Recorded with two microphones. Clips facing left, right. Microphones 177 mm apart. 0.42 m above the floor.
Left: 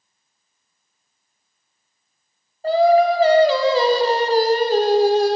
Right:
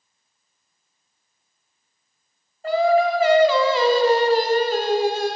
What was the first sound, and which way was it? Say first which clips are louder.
Singing: left 4 dB; 35° left (ahead or behind).